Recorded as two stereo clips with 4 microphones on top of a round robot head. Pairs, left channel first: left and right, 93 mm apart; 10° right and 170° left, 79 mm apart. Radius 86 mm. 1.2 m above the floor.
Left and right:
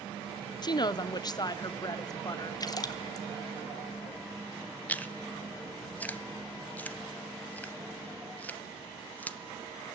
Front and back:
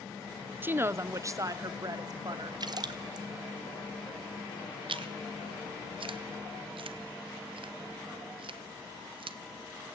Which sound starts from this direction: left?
A woman speaking, at 0.6 s.